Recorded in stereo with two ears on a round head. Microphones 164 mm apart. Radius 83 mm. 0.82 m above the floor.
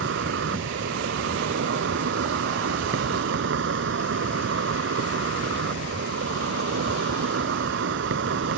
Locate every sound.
0.0 s an insect: 75° right (ahead or behind)